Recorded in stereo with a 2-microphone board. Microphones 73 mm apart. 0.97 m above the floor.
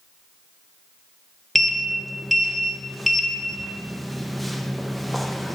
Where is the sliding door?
Centre (ahead or behind), 1.0 m.